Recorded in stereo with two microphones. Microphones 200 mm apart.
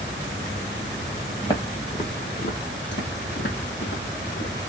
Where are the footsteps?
20° left (ahead or behind), 1.0 m; by 4.5 s 70° left (ahead or behind), 1.8 m.